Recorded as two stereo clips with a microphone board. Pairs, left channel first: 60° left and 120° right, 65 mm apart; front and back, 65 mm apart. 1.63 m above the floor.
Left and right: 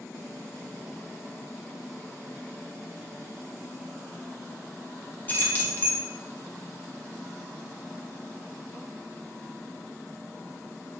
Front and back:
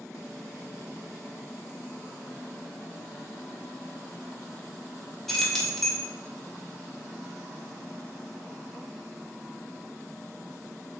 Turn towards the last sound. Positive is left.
turn(degrees=80)